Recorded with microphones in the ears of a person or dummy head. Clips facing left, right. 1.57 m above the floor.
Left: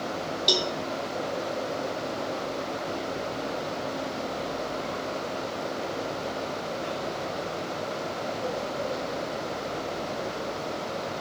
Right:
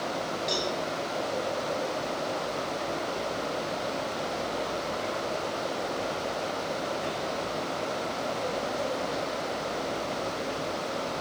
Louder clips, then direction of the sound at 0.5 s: Left 4 dB; 45° left (ahead or behind).